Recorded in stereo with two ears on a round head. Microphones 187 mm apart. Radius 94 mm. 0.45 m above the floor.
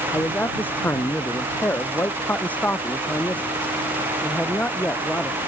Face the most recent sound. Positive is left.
turn(degrees=5)  # may be behind; listen again after turning